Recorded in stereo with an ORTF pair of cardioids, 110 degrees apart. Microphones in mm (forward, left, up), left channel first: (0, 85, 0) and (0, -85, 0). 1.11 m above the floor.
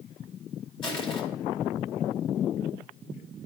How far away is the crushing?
About 2.5 m.